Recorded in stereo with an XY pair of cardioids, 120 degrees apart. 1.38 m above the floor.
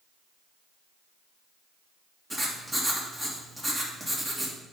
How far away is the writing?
About 1.8 m.